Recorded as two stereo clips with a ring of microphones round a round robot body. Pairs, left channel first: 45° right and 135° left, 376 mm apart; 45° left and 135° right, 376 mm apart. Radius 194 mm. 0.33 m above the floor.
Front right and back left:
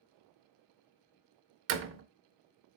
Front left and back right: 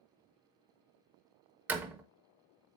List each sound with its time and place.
1.7 s a door slam: 145° left, 0.6 m